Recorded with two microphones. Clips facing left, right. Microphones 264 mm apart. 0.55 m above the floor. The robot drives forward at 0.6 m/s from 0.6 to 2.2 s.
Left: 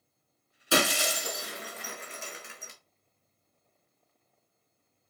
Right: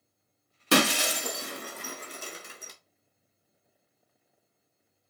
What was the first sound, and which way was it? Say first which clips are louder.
Breaking glass: right 4 dB; 70° right (ahead or behind).